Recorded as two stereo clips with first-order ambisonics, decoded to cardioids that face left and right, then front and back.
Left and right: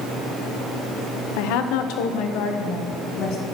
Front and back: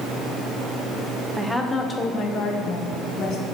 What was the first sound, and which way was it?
A woman speaking, 95° left.